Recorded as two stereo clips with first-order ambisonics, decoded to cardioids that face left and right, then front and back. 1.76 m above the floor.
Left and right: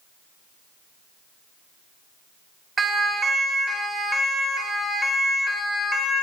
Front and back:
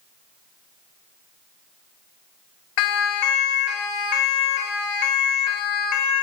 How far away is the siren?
About 4.5 m.